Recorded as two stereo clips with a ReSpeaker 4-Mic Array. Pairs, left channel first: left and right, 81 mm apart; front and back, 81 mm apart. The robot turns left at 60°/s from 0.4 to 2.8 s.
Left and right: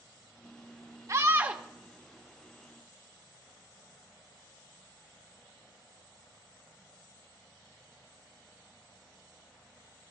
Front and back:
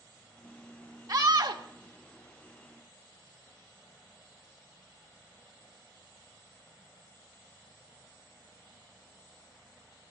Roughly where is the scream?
Behind right.